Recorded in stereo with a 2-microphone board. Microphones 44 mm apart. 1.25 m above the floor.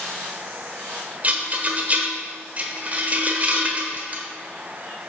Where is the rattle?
35° right (ahead or behind), 1.2 m.